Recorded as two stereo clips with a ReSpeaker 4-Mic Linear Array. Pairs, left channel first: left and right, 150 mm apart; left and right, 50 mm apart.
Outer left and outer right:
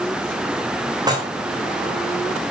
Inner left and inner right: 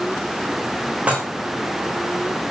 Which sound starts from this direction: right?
Dishes clattering, at 1.1 s.